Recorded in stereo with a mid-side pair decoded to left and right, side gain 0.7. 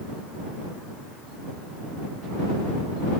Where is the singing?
I don't hear singing.